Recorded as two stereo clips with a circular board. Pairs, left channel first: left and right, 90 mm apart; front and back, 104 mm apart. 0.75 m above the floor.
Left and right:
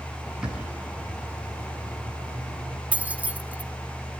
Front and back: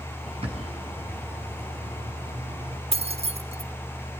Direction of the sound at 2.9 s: 165° right.